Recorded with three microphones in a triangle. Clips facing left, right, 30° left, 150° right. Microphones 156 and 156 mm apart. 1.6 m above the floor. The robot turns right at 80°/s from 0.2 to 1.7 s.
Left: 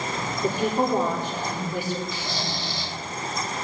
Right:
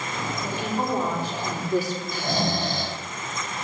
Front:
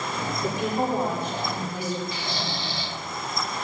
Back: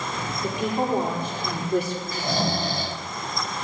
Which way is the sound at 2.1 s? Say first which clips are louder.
Right 6 dB, back 6 dB; 115° right.